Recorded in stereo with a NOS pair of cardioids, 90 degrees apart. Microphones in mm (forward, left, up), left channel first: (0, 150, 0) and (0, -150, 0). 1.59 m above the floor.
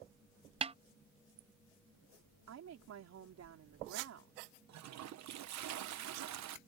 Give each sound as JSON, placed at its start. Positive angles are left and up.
{"t": 0.6, "sound": "a snare drum", "azimuth_deg": -20}
{"t": 2.5, "sound": "a woman speaking", "azimuth_deg": -60}
{"t": 4.7, "sound": "a toilet flushing", "azimuth_deg": -65}